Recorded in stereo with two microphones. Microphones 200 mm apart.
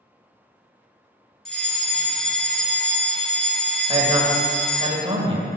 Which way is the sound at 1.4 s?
5° left (ahead or behind).